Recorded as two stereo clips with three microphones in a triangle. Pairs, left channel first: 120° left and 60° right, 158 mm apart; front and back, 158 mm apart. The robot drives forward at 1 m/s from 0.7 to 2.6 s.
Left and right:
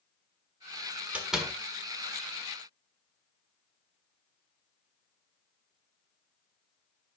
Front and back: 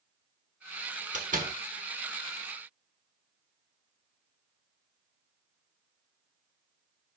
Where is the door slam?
140° right, 1.2 m; by 1.6 s 150° right, 1.6 m.